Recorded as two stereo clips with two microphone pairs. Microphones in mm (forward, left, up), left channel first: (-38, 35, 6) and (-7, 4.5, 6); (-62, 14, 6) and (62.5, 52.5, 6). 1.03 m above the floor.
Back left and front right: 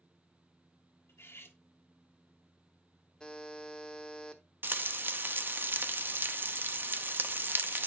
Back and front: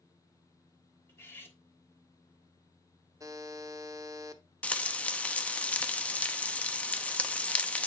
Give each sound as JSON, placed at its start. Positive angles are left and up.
{"t": 1.1, "sound": "cutlery clinking", "azimuth_deg": 125, "distance_m": 1.2}
{"t": 3.2, "sound": "a buzzer", "azimuth_deg": 70, "distance_m": 0.8}
{"t": 4.6, "sound": "frying", "azimuth_deg": -85, "distance_m": 0.7}